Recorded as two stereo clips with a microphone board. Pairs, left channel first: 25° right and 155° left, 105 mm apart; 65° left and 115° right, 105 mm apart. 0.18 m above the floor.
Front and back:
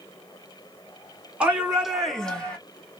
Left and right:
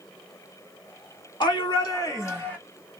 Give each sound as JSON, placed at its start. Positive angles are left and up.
{"t": 1.4, "sound": "a shout", "azimuth_deg": 80, "distance_m": 2.5}